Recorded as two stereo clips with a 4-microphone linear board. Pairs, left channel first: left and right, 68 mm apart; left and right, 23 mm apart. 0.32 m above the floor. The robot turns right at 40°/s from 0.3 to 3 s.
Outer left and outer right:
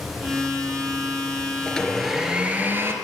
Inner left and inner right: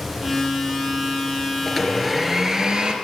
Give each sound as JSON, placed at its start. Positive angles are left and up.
{"t": 1.7, "sound": "a blender", "azimuth_deg": 170, "distance_m": 3.5}